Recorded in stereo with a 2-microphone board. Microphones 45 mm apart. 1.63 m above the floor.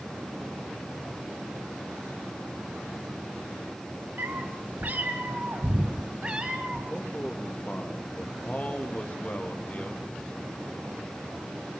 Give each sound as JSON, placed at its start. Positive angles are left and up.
{"t": 4.2, "sound": "a cat meowing", "side_deg": -45, "distance_m": 3.0}
{"t": 6.9, "sound": "a man speaking", "side_deg": 35, "distance_m": 3.0}